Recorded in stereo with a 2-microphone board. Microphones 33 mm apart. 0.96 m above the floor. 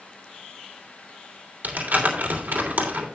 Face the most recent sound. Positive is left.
turn(degrees=-80)